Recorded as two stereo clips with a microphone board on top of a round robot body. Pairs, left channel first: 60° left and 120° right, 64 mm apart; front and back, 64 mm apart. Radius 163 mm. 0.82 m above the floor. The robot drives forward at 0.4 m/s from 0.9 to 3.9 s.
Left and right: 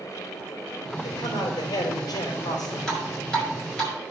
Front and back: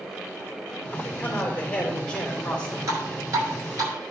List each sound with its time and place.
1.0 s a man speaking: 70° left, 3.5 m; by 2.8 s 80° left, 3.5 m
2.9 s dripping: 145° left, 7 m